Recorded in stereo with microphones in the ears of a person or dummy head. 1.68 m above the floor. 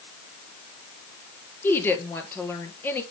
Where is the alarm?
I don't hear an alarm.